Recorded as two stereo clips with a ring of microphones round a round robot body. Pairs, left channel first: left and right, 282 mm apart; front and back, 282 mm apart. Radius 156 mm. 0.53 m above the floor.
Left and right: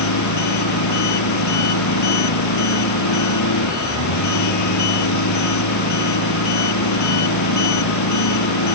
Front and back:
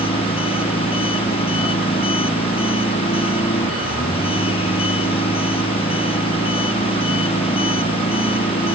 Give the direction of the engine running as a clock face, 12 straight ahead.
10 o'clock.